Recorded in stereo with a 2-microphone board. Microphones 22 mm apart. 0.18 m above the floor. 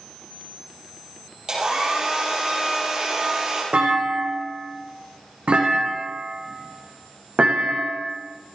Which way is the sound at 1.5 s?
35° right (ahead or behind).